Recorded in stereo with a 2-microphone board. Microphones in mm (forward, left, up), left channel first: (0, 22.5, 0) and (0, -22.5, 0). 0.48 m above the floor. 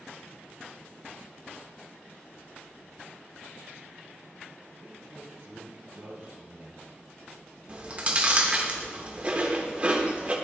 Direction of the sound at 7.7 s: 30° right (ahead or behind).